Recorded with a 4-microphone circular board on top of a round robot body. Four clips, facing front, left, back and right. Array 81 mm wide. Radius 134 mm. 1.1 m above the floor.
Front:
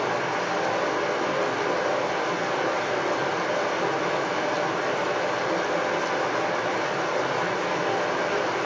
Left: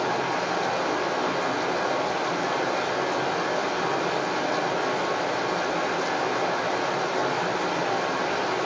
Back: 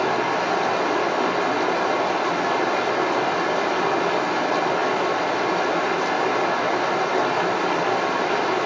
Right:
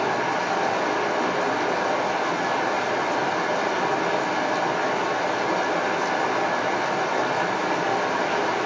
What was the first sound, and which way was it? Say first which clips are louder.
Running water: right 2 dB, back 4 dB; 155° right.